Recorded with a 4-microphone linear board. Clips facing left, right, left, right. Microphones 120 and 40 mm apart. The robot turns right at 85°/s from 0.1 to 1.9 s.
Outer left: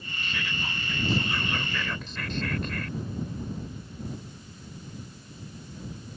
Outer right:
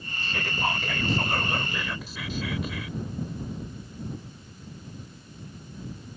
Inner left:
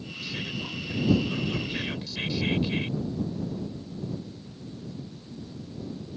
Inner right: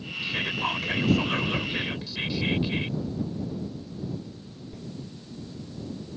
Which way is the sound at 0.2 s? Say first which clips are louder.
Outer right 7 dB, inner right 7 dB; 150° right.